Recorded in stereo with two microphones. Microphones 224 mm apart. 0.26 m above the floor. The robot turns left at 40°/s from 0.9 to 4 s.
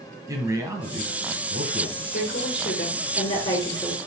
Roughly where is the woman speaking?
Left.